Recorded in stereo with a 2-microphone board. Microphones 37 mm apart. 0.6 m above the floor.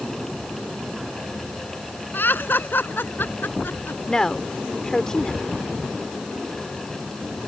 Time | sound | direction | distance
2.1 | laughter | 60° left (ahead or behind) | ?
4.1 | a woman speaking | 20° left (ahead or behind) | ?